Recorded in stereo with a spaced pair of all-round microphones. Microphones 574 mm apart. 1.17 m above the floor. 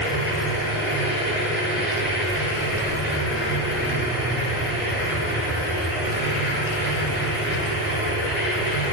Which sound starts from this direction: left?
A machine running, at 0.0 s.